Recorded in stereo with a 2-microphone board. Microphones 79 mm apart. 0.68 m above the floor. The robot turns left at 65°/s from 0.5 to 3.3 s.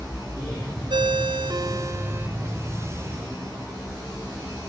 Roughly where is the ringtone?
Right.